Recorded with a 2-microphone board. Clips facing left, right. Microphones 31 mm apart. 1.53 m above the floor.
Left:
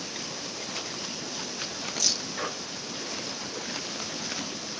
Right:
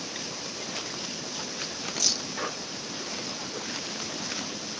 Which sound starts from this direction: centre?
Keys jangling, at 2.0 s.